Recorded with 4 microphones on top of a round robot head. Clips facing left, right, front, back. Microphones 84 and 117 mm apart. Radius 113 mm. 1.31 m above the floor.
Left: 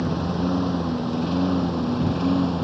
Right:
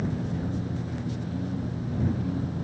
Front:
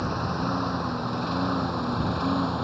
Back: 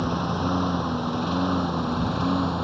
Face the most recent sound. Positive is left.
turn(degrees=95)